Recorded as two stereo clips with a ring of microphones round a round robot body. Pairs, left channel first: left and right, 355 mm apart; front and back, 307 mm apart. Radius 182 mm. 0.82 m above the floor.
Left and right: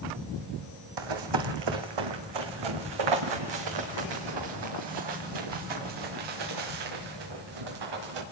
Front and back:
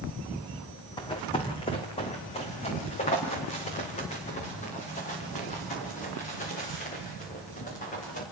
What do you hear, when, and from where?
1.0 s running footsteps: 75° right, 1.8 m; by 8.2 s 70° right, 6 m